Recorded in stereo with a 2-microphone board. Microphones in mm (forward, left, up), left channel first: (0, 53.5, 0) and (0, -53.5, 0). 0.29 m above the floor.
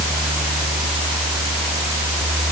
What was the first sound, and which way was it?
Only background noise.